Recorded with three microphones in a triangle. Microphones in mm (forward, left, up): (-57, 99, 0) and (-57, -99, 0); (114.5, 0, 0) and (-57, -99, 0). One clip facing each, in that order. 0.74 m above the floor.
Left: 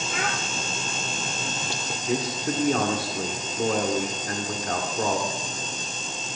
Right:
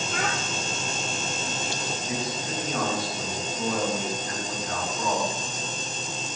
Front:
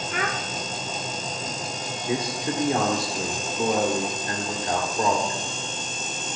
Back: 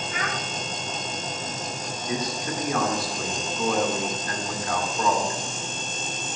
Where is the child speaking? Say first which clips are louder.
Even, front 4 dB; 5° left, 1.0 m.